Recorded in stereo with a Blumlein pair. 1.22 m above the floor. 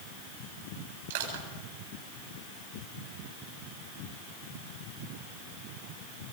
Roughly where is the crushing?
Ahead right.